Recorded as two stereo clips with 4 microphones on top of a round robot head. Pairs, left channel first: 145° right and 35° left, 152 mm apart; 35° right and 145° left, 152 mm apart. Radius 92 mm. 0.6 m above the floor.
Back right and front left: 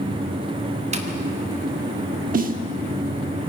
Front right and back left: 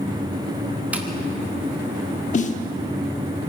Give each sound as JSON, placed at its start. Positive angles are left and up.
{"t": 0.9, "sound": "tapping", "azimuth_deg": 65, "distance_m": 1.7}
{"t": 2.3, "sound": "a snare drum", "azimuth_deg": 5, "distance_m": 0.9}